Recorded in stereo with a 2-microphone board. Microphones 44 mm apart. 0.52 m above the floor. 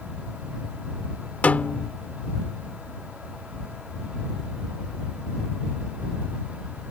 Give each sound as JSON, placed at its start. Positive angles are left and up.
{"t": 1.4, "sound": "a snare drum", "side_deg": 35}